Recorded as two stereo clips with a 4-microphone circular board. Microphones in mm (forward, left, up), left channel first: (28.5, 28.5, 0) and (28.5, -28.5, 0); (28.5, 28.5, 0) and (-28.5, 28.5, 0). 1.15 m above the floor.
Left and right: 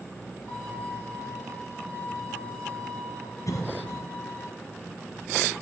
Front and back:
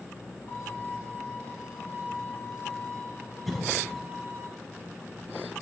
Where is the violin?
25° left, 4 m.